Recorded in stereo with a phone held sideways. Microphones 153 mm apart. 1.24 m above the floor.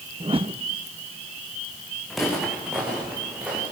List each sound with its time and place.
0.2 s a whoosh: 35° right (ahead or behind), 0.7 m
2.1 s footsteps: centre (ahead or behind), 7 m; by 3.6 s 5° right (ahead or behind), 8 m